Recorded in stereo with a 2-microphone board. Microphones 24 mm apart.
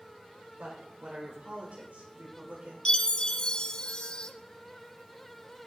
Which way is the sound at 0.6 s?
80° right.